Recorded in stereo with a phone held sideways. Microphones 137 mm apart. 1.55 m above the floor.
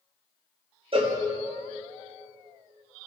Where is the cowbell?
40° right (ahead or behind), 1.3 m.